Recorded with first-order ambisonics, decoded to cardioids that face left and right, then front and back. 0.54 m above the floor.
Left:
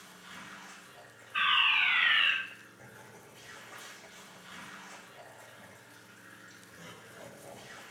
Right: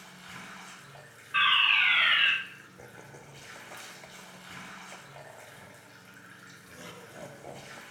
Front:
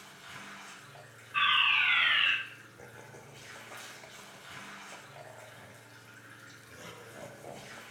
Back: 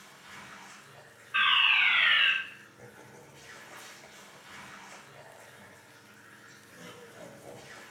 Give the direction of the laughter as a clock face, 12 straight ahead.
2 o'clock.